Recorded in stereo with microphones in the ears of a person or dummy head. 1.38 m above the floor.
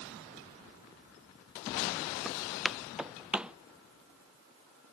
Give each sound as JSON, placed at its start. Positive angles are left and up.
{"t": 2.2, "sound": "footsteps", "side_deg": -10}